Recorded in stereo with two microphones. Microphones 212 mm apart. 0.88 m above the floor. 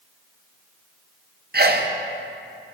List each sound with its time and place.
1.5 s a sneeze: 50° right (ahead or behind), 0.5 m